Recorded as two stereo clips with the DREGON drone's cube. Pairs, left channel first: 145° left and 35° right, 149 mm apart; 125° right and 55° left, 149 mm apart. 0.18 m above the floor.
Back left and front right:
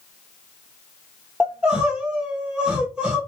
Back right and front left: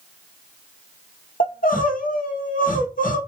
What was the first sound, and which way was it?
Crying, 115° right.